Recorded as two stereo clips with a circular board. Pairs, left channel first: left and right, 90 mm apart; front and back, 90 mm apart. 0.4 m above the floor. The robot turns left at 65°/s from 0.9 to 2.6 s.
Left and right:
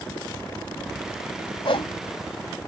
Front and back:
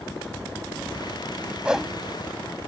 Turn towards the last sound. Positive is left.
turn(degrees=40)